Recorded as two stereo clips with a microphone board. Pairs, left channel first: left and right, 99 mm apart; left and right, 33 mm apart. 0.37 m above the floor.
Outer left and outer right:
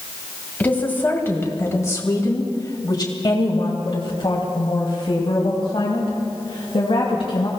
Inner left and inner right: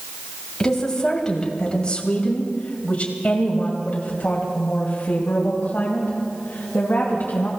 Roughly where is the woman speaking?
Centre.